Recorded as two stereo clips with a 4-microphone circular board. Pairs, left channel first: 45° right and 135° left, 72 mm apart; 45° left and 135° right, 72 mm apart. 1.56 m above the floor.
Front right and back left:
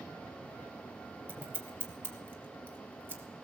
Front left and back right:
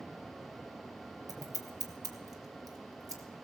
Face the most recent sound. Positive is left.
turn(degrees=-165)